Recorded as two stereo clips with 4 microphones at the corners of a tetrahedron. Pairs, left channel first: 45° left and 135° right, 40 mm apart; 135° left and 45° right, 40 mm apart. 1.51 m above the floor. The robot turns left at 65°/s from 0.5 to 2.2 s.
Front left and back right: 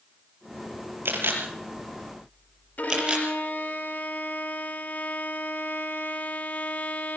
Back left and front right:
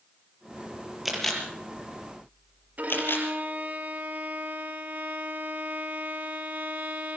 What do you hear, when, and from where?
1.1 s a camera shutter: 125° right, 5.5 m; by 3.2 s 160° left, 5.5 m
2.8 s a violin: straight ahead, 2.5 m